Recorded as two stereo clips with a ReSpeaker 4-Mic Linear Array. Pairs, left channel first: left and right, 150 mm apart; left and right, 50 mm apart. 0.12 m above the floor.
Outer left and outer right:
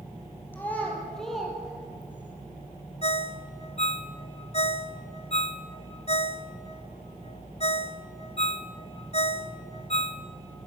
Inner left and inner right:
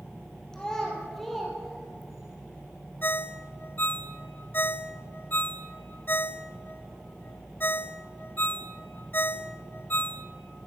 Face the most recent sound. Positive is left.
turn(degrees=45)  # may be behind; listen again after turning